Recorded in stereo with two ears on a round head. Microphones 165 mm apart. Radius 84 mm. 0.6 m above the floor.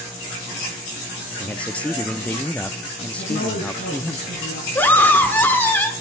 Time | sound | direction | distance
1.4 | a man speaking | 5° left (ahead or behind) | 0.5 m
3.2 | a woman speaking | 50° left (ahead or behind) | 6 m
4.8 | a scream | 10° left (ahead or behind) | 1.3 m